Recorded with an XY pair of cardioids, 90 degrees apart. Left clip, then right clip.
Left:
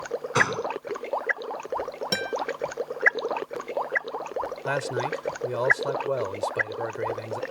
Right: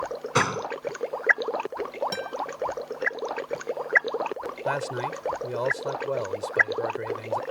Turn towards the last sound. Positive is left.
turn(degrees=15)